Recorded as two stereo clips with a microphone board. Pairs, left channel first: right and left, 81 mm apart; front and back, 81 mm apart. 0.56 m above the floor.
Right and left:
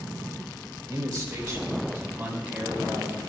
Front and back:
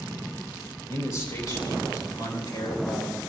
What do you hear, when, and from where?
0.9 s a man speaking: 45° left, 3 m; by 3.2 s 10° left, 2.5 m